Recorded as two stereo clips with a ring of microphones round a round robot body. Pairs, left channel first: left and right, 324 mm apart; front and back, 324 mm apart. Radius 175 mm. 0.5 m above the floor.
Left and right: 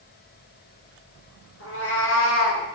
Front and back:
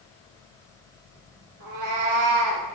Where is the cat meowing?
140° left, 1.8 m.